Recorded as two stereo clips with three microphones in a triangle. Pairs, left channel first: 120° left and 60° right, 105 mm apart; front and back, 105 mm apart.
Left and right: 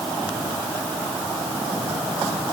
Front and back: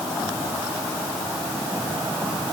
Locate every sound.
Only background noise.